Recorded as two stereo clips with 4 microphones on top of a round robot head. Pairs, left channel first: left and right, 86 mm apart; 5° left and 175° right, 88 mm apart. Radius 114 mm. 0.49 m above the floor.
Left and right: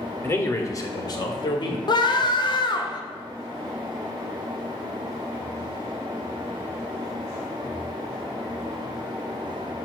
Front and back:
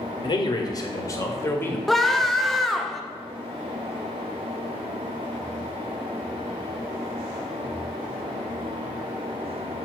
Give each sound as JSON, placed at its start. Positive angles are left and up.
{"t": 0.2, "sound": "a man speaking", "azimuth_deg": 30, "distance_m": 1.8}
{"t": 1.9, "sound": "a scream", "azimuth_deg": 90, "distance_m": 1.2}